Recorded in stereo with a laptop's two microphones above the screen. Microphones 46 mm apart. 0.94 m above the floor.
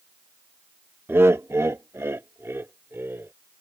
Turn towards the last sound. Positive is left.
turn(degrees=-55)  # may be behind; listen again after turning